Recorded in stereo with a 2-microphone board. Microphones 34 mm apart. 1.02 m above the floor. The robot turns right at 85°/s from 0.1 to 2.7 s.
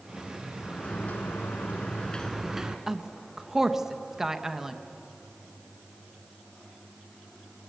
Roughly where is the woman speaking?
Centre.